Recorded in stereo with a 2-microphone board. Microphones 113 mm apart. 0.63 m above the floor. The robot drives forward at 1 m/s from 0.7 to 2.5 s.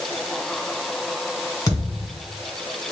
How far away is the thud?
About 1.5 m.